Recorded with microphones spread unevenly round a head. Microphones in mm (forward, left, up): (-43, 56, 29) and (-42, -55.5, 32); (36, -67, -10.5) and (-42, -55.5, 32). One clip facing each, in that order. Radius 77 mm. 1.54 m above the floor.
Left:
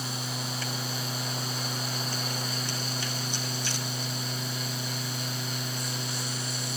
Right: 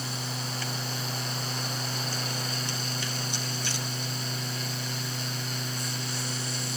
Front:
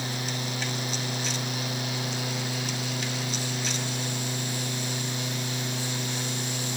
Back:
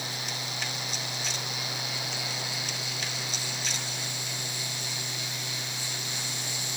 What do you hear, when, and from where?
Only background noise.